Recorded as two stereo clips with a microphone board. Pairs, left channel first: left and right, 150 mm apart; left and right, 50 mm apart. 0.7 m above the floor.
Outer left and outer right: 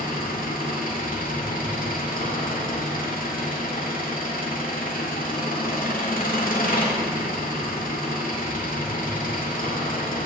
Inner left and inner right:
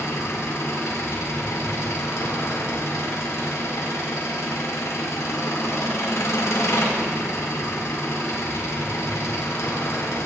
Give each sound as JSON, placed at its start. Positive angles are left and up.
{"t": 0.0, "sound": "an engine running", "side_deg": 65, "distance_m": 1.9}